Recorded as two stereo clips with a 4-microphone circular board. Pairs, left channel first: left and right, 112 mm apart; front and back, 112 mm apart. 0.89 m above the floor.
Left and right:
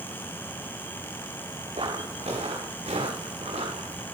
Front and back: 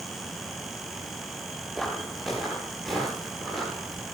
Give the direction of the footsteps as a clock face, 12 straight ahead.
3 o'clock.